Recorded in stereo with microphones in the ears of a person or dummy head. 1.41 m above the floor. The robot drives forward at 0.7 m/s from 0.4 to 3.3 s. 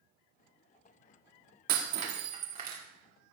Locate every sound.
1.7 s breaking glass: 45° right (ahead or behind), 1.7 m; by 2.8 s 30° right (ahead or behind), 2 m